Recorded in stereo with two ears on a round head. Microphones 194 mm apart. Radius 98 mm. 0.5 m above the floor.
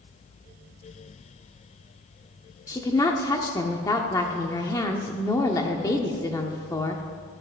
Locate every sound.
2.7 s a woman speaking: 15° left (ahead or behind), 0.8 m